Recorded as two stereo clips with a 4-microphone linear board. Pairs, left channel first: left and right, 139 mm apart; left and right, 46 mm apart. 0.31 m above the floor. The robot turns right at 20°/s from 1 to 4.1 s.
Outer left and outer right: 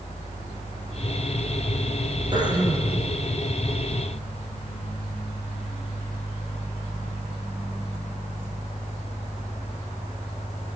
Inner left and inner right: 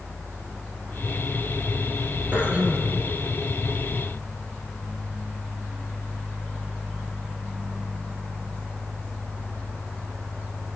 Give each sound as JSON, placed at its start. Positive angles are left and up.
{"t": 2.3, "sound": "throat clearing", "side_deg": -30, "distance_m": 4.0}